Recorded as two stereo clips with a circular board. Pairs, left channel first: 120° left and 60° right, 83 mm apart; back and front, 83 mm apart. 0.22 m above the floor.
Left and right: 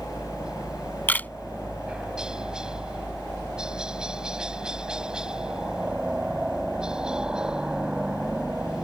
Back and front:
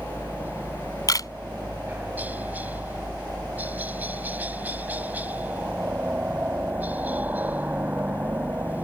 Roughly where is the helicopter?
Ahead.